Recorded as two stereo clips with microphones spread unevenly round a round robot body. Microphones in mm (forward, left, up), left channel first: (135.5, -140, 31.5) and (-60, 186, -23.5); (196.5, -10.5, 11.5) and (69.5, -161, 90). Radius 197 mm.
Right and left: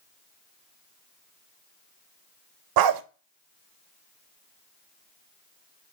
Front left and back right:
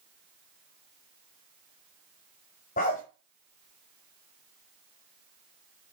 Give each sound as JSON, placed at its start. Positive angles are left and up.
{"t": 2.8, "sound": "a dog barking", "azimuth_deg": 130, "distance_m": 0.5}